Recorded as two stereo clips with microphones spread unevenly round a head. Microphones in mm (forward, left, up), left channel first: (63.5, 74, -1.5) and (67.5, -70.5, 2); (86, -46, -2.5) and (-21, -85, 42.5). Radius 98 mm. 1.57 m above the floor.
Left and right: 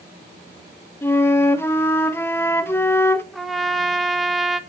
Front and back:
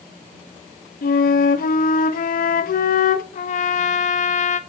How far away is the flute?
About 0.8 m.